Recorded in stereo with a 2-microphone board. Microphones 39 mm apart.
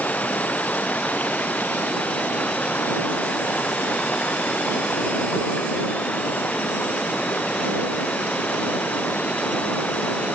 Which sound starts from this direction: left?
Running water, at 0.0 s.